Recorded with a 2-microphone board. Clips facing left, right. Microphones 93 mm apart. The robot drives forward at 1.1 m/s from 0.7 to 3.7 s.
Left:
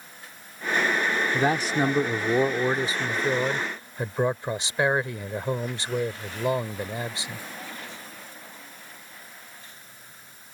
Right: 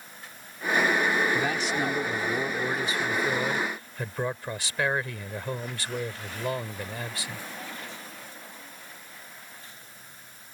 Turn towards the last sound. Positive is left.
turn(degrees=25)  # may be behind; listen again after turning